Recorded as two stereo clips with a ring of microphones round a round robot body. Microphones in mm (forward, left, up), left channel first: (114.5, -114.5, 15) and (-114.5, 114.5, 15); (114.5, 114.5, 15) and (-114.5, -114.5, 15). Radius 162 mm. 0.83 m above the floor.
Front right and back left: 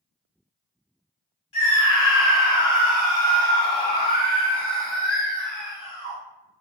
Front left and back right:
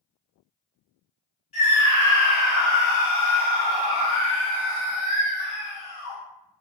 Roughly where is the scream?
Ahead.